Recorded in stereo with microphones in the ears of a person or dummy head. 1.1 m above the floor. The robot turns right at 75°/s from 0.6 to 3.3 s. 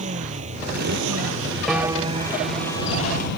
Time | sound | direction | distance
0.0 | a motorcycle | 140° right | ?
1.7 | a piano | straight behind | ?